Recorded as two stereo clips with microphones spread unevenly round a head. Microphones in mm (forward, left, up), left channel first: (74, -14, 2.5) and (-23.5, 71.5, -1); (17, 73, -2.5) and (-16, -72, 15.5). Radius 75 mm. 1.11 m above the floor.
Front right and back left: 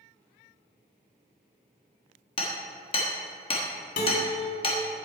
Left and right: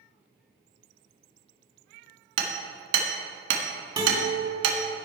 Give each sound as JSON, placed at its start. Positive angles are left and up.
{"t": 2.4, "sound": "hammering", "azimuth_deg": -100, "distance_m": 1.4}
{"t": 4.0, "sound": "a guitar", "azimuth_deg": -40, "distance_m": 3.0}